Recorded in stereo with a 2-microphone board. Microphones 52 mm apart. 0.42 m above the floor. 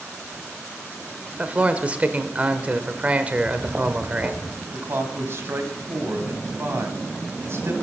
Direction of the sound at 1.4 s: 30° right (ahead or behind).